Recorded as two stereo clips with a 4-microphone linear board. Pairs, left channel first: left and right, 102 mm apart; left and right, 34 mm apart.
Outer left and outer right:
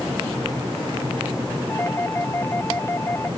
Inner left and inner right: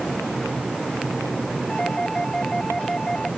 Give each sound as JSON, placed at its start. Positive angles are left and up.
{"t": 1.7, "sound": "a doorbell", "side_deg": 25}